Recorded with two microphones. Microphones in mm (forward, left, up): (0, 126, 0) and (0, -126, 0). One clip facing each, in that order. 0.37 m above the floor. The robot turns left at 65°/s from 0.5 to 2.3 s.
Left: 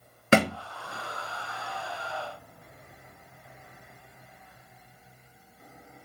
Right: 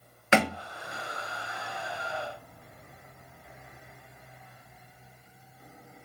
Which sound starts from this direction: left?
A thud, at 0.3 s.